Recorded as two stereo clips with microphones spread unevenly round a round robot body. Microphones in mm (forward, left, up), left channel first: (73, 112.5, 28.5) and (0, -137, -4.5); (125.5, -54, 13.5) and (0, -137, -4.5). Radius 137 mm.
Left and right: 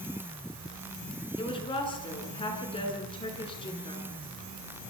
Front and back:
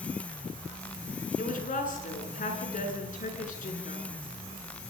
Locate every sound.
1.4 s a woman speaking: 5° left, 6.5 m